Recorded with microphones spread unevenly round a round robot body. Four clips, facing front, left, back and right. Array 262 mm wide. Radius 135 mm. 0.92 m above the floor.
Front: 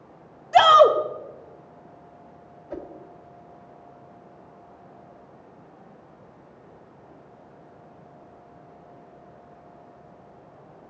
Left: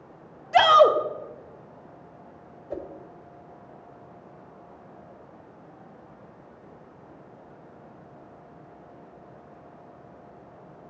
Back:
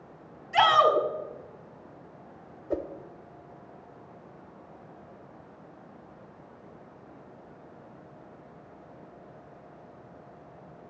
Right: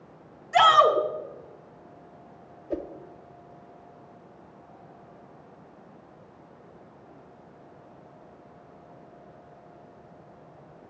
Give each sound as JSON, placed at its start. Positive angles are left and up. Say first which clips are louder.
{"t": 0.5, "sound": "a shout", "louder": "left 2 dB, front 7 dB", "azimuth_deg": 40, "distance_m": 2.0}
{"t": 2.7, "sound": "a whoosh", "louder": "right 3 dB, back 5 dB", "azimuth_deg": -165, "distance_m": 0.9}